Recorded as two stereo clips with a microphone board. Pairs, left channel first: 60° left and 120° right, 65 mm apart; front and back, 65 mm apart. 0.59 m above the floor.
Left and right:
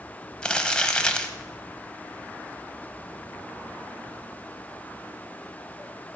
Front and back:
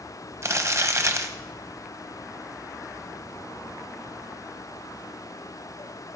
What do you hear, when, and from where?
0.4 s crumpling: 135° left, 1.1 m